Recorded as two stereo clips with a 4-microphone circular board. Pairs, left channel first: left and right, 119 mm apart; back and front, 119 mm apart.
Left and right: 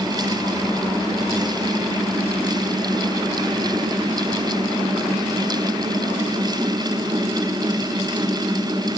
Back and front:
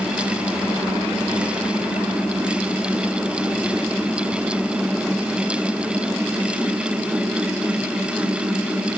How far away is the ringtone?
I don't hear a ringtone.